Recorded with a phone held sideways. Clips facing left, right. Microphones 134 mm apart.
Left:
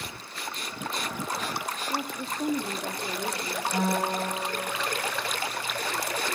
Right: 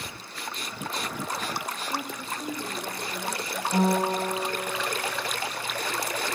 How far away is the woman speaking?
About 1.5 m.